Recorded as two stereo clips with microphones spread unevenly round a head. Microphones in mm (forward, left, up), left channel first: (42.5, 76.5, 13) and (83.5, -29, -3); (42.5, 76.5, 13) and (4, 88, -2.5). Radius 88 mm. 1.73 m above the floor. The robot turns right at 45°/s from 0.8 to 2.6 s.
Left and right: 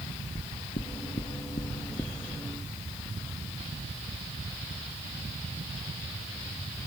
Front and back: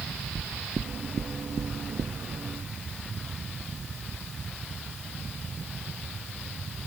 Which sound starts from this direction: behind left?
Knocking, at 0.3 s.